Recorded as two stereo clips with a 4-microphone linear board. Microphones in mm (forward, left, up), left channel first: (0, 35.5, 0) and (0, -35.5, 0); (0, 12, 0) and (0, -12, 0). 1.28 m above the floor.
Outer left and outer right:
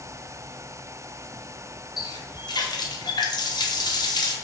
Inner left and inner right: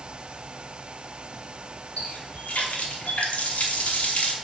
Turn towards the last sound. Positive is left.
turn(degrees=80)